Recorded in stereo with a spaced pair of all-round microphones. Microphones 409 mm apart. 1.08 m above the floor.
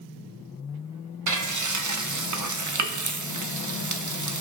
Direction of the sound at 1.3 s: 45° right (ahead or behind).